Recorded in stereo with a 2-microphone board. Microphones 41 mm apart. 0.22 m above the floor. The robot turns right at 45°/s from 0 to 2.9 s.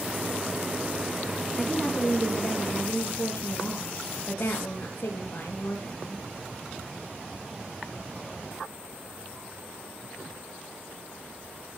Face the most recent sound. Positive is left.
turn(degrees=60)